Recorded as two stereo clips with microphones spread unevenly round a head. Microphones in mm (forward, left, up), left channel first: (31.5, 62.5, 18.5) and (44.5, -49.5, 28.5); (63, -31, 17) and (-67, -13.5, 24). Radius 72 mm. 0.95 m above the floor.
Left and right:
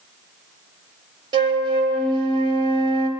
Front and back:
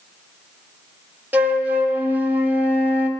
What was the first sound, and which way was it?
A flute, 115° right.